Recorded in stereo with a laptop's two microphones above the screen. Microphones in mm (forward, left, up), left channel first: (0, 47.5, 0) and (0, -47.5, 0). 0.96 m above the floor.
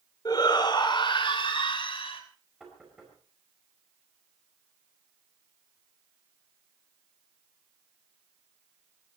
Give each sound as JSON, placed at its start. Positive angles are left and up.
{"t": 0.2, "sound": "a shout", "side_deg": 45, "distance_m": 3.0}
{"t": 2.6, "sound": "knocking", "side_deg": -5, "distance_m": 5.0}